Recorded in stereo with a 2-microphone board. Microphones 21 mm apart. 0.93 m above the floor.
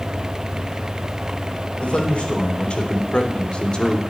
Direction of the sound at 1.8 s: 55° left (ahead or behind).